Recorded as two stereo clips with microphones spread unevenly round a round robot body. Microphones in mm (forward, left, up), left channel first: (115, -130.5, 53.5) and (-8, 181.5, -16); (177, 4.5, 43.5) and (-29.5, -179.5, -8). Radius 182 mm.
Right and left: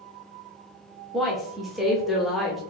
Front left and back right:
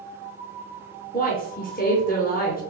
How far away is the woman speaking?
About 0.8 m.